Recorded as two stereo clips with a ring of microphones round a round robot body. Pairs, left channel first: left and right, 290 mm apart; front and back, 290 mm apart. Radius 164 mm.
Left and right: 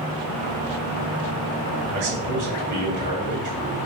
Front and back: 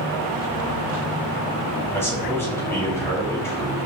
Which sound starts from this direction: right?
A man speaking, at 1.9 s.